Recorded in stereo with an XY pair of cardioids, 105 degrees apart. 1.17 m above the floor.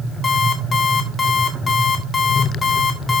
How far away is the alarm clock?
About 1.8 m.